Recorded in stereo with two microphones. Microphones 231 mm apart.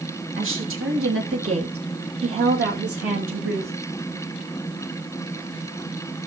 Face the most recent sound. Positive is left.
turn(degrees=-70)  # may be behind; listen again after turning